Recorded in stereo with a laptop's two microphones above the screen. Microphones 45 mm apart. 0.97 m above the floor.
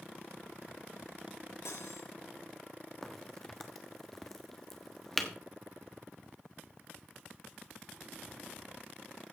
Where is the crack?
10° left (ahead or behind), 1.2 m.